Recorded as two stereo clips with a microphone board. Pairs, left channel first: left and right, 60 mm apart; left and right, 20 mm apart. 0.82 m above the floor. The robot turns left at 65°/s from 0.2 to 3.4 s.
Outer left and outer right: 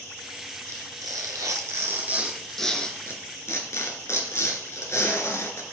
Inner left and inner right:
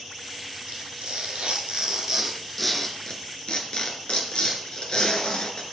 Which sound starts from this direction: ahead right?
Tearing paper, at 0.7 s.